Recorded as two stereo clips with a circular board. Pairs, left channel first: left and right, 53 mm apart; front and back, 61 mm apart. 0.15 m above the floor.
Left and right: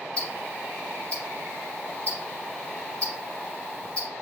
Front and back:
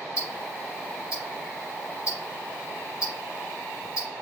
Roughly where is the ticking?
Behind left.